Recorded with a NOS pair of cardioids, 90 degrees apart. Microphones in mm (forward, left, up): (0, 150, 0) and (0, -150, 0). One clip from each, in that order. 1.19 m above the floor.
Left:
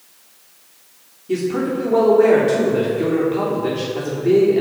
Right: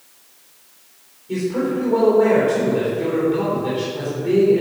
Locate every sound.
1.3 s a man speaking: 45° left, 3.5 m